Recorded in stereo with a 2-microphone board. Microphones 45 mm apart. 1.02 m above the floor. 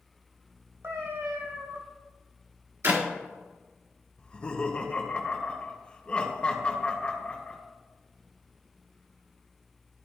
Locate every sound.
0.8 s a cat meowing: 60° right (ahead or behind), 2 m
2.8 s a clap: 75° right (ahead or behind), 1.7 m
4.2 s laughter: 25° left (ahead or behind), 1.4 m